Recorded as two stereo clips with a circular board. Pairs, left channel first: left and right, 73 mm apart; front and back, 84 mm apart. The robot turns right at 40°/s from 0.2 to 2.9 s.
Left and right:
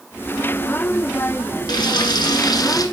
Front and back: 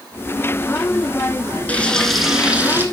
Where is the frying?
70° left, 1.7 m; by 2.9 s 120° left, 1.7 m.